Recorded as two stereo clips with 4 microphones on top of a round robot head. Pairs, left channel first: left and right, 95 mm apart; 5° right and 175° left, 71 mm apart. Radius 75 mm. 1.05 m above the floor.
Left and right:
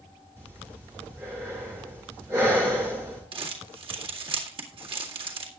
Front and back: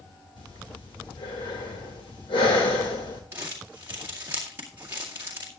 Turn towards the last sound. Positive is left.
turn(degrees=-120)